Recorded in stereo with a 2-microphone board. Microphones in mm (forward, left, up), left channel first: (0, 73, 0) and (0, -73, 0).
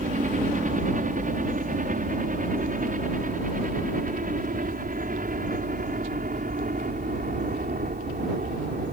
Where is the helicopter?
65° right (ahead or behind); by 8.9 s 75° right (ahead or behind).